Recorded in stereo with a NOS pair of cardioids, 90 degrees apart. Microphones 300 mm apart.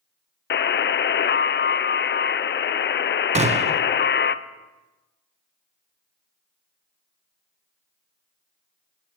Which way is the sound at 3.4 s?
20° right.